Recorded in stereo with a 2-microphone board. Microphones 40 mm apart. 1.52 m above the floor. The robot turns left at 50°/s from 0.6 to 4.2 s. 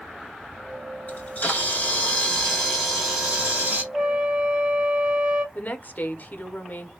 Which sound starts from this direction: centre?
A flute, at 3.9 s.